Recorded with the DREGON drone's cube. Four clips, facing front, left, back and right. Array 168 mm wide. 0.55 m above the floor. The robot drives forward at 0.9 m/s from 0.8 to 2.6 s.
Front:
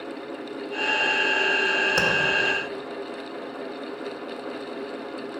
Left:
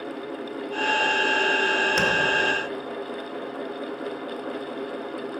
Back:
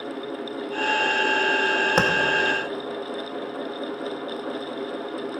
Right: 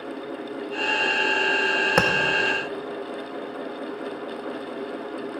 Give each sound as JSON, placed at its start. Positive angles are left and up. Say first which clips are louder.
{"t": 2.0, "sound": "tapping", "louder": "right 7 dB, back 5 dB", "azimuth_deg": -120, "distance_m": 1.7}